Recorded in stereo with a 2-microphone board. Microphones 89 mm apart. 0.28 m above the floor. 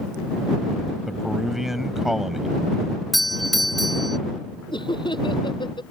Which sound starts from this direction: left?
Laughter, at 4.7 s.